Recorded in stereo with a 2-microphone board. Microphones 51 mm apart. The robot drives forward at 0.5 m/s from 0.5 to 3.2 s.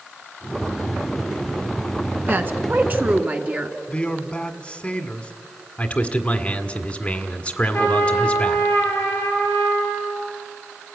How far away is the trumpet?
About 4.5 m.